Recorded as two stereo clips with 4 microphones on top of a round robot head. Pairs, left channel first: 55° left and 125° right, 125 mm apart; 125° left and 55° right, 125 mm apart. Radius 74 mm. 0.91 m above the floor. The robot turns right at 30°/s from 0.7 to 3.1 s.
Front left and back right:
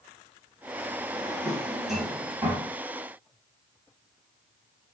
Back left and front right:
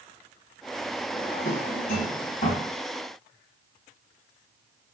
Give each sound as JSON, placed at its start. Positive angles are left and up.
{"t": 1.1, "sound": "a drawer", "azimuth_deg": 125, "distance_m": 4.0}